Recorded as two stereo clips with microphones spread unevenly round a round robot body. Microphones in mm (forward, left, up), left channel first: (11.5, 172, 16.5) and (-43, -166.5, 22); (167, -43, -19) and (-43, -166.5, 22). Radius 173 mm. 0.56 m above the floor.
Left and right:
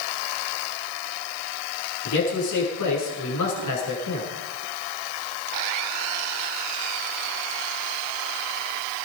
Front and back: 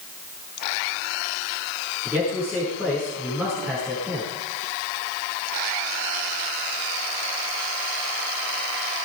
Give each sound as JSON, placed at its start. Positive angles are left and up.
{"t": 2.0, "sound": "a man speaking", "azimuth_deg": 125, "distance_m": 8.0}